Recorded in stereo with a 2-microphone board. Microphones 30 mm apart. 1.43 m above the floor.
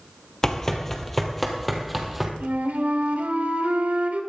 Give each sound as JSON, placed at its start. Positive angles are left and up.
{"t": 0.4, "sound": "running footsteps", "side_deg": 15, "distance_m": 1.7}
{"t": 2.4, "sound": "a flute", "side_deg": -65, "distance_m": 2.5}